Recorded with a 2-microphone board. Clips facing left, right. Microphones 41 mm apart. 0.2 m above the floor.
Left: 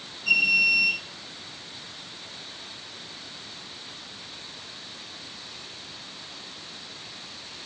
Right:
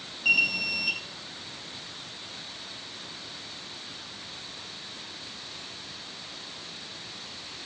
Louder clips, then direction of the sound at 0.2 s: Left 4 dB; 70° right (ahead or behind).